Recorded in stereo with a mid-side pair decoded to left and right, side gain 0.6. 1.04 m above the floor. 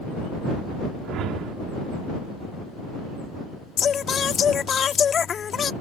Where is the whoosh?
60° right.